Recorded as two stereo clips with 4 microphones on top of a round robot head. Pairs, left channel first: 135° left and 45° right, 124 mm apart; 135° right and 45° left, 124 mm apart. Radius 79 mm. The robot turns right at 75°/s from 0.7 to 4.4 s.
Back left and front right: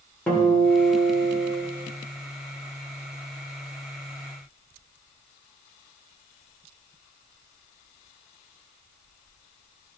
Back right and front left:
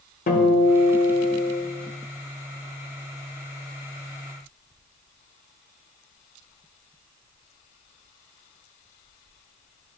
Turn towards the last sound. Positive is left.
turn(degrees=130)